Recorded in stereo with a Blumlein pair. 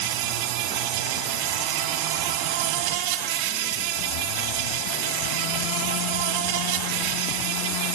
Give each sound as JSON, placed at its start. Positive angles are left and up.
{"t": 0.0, "sound": "an insect", "azimuth_deg": -45, "distance_m": 1.0}